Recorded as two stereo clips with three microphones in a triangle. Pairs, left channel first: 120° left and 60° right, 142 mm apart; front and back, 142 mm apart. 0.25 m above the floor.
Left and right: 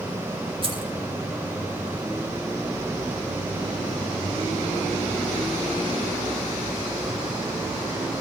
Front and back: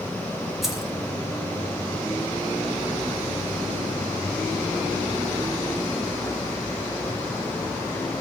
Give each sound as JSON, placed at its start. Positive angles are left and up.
{"t": 0.6, "sound": "keys jangling", "azimuth_deg": -90, "distance_m": 1.0}